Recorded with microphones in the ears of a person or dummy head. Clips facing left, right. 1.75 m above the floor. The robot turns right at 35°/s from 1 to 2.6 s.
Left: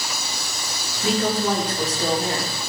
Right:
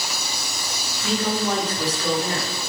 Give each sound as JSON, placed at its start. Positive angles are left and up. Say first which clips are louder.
{"t": 1.0, "sound": "a woman speaking", "louder": "left 2 dB", "azimuth_deg": 115, "distance_m": 0.9}